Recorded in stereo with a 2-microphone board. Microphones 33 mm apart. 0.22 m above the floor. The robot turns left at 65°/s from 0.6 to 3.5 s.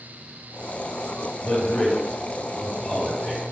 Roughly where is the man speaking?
Left.